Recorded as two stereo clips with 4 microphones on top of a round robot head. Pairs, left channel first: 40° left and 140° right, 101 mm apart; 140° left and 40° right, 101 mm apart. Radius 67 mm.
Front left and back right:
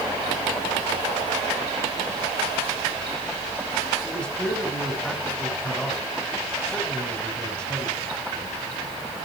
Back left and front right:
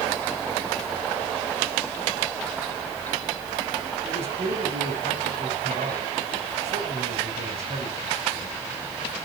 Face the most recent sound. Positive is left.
turn(degrees=-40)